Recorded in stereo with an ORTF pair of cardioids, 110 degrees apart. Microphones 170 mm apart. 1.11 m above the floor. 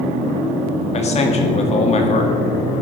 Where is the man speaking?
40° left, 2.0 m.